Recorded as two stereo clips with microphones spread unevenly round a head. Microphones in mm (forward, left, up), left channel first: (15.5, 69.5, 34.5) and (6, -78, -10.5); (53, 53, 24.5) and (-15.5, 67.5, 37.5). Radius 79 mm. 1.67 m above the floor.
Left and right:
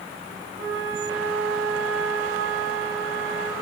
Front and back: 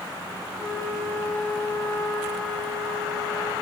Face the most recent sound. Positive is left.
turn(degrees=-100)